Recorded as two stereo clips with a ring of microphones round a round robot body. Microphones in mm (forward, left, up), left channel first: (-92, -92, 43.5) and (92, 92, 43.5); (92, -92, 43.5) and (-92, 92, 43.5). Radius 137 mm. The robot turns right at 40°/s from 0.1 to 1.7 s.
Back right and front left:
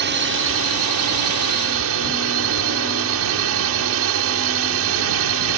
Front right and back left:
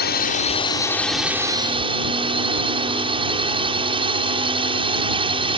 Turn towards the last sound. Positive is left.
turn(degrees=65)